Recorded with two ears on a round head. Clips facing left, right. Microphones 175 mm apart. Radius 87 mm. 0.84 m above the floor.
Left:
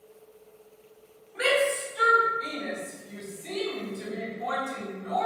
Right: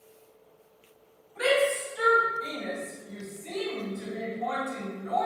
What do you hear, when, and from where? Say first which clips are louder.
1.4 s a shout: right 1 dB; 80° left, 1.8 m